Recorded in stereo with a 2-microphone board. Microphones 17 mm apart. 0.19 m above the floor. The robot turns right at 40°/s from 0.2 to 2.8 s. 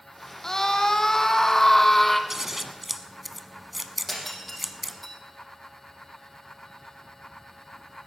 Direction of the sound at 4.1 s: 10° left (ahead or behind).